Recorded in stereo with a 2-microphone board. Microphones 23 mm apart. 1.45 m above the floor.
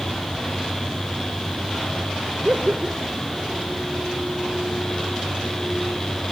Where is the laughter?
65° right (ahead or behind), 1.3 m.